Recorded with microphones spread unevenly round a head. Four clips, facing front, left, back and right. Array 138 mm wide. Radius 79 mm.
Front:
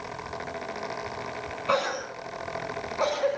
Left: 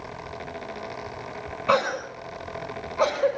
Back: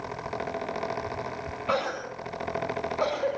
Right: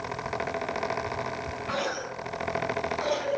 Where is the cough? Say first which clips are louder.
Left 10 dB, front 2 dB; 110° left, 6 m.